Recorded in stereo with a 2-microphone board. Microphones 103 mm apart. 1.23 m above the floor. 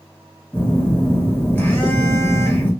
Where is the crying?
No crying in this recording.